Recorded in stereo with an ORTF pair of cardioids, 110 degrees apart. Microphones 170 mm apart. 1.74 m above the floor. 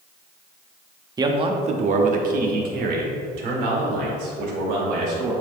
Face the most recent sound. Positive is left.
turn(degrees=-80)